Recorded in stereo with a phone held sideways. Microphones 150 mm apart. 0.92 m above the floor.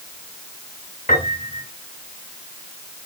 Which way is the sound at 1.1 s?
70° left (ahead or behind).